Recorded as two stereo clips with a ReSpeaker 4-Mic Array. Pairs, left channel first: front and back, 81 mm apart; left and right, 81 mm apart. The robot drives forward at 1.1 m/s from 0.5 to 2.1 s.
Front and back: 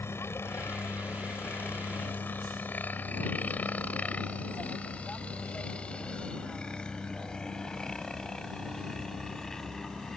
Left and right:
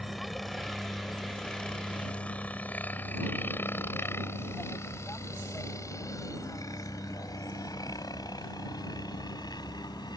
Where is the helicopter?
Straight ahead; by 10.2 s 85° left.